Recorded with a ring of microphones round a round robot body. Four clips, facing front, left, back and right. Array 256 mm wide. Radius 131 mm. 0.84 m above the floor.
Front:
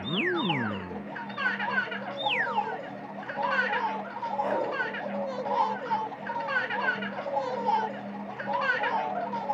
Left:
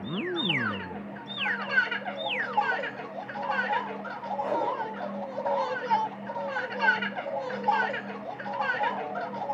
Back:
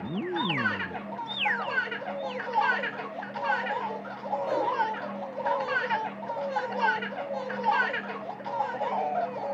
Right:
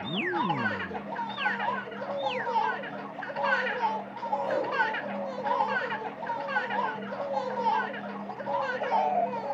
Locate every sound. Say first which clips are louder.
4.4 s a whoosh: left 3 dB, back 1 dB; 20° left, 7 m